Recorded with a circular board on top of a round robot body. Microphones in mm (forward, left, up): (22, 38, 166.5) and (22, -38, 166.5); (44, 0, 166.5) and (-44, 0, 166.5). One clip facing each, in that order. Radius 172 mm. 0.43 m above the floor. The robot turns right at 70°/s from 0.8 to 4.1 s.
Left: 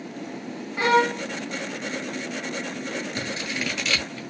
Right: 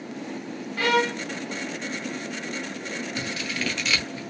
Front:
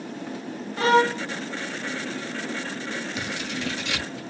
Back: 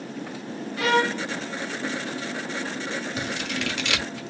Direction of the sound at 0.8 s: 35° left.